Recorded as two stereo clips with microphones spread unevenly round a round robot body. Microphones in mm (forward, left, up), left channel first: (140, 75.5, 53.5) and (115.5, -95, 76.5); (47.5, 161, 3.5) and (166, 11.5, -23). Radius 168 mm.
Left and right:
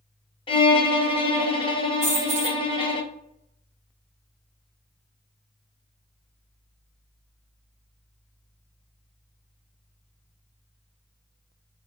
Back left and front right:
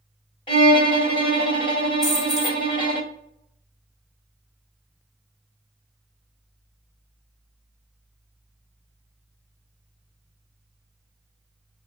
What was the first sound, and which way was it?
A violin, 65° left.